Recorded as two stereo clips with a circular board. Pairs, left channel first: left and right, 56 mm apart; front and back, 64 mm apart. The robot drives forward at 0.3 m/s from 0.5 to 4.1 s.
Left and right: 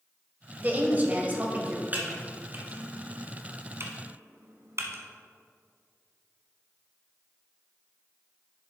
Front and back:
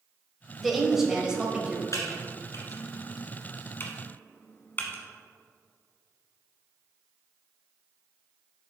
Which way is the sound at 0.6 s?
90° right.